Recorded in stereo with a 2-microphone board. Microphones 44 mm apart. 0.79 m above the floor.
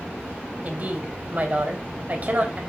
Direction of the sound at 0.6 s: 40° right (ahead or behind).